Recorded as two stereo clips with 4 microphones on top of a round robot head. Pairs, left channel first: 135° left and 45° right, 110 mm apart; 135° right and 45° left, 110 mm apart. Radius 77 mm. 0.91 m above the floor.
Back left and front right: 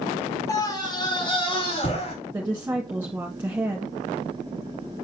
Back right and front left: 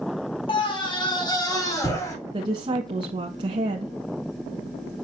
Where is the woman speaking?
25° left, 1.3 m.